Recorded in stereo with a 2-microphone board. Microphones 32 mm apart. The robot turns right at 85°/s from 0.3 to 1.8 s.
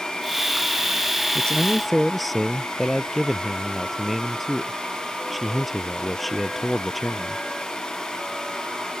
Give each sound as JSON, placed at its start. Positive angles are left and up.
{"t": 1.4, "sound": "a man speaking", "azimuth_deg": 140}